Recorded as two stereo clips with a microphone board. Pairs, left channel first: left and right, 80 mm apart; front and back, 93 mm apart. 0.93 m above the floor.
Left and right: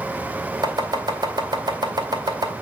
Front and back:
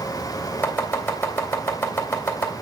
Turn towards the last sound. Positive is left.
turn(degrees=-65)